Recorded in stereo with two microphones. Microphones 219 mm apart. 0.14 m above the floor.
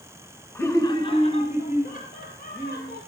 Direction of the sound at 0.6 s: 10° left (ahead or behind).